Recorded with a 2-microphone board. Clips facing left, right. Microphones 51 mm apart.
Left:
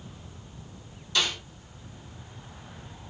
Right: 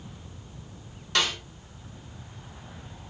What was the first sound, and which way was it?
A snare drum, 55° right (ahead or behind).